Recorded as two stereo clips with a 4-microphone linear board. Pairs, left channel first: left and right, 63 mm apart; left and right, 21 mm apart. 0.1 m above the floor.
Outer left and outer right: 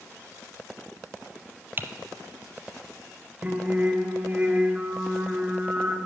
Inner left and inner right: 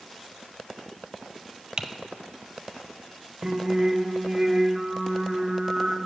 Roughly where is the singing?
Centre.